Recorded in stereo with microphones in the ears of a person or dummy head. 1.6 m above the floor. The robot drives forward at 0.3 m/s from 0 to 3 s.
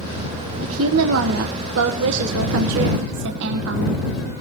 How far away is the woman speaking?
About 1.5 m.